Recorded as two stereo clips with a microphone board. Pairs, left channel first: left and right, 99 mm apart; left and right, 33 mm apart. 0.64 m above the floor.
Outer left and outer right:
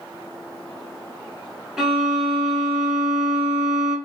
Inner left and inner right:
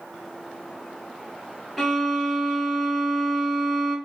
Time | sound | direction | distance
1.8 | a violin | 5° right (ahead or behind) | 1.5 m